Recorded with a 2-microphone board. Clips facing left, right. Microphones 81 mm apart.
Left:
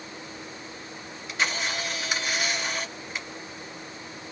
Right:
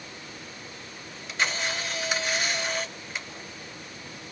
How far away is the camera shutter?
About 1.7 m.